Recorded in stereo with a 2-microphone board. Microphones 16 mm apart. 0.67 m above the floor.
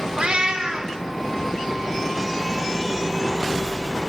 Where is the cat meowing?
80° right, 0.8 m.